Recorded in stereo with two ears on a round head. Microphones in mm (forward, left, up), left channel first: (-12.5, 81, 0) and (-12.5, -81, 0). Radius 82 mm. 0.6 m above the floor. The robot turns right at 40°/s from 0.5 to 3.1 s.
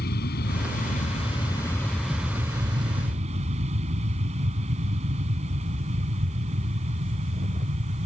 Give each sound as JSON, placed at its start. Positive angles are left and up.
{"t": 0.0, "sound": "an aircraft", "azimuth_deg": 115}